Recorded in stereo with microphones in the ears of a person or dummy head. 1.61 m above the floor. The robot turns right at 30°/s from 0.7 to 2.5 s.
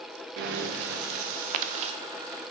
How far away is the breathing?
About 0.5 m.